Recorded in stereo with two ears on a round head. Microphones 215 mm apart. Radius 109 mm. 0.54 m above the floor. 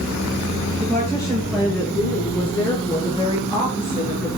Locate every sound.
0.8 s a woman speaking: 10° left (ahead or behind), 9 m; by 4.4 s 20° left (ahead or behind), 7.5 m